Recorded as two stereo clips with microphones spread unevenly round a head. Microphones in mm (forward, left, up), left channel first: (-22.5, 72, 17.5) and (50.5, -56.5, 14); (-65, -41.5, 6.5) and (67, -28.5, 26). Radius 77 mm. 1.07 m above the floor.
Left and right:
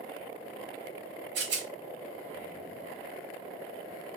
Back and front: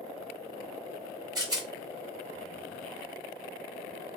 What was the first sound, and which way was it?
A rattle, 60° right.